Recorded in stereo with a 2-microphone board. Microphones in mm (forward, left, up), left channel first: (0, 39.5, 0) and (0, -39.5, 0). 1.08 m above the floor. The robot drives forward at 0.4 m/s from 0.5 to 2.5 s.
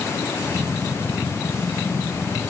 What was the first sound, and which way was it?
Only background noise.